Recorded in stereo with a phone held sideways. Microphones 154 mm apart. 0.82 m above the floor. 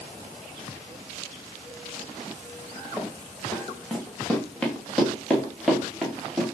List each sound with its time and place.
3.0 s running footsteps: 20° left (ahead or behind), 3.5 m; by 6.4 s 5° right (ahead or behind), 5.5 m